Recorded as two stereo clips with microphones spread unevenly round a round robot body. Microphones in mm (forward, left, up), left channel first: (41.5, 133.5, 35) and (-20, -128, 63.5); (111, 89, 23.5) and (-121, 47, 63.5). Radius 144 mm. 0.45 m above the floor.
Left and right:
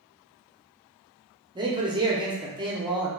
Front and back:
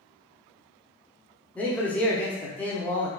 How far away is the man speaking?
About 0.7 m.